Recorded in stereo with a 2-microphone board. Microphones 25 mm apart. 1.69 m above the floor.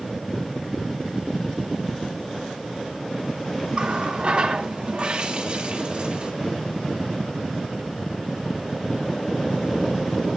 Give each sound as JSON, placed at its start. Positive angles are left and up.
{"t": 3.7, "sound": "a running tap", "side_deg": -45, "distance_m": 2.5}